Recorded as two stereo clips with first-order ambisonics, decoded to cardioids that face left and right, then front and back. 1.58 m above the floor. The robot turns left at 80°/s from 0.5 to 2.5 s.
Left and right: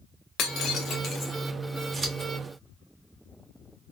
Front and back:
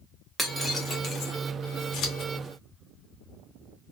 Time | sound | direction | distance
0.4 | breaking glass | 90° left | 0.9 m
1.9 | scissors | 25° right | 2 m